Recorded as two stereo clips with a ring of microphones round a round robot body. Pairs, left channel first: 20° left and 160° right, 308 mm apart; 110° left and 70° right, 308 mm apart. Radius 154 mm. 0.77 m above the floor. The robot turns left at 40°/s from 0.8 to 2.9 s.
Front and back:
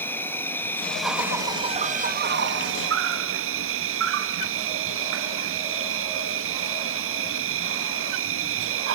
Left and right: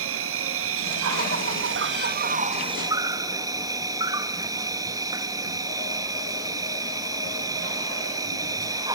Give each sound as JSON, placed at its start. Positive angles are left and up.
{"t": 0.0, "sound": "an insect", "azimuth_deg": -60, "distance_m": 1.2}